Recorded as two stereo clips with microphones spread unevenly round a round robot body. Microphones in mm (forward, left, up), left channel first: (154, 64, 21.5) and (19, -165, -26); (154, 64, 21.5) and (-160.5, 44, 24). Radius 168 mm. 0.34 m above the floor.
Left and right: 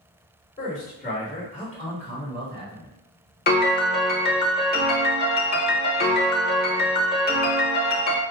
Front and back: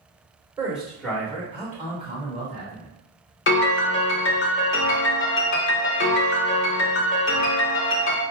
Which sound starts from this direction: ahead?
A piano, at 3.5 s.